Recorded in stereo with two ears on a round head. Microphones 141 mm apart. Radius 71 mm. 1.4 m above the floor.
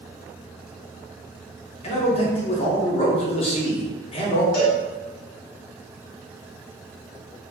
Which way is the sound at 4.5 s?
80° left.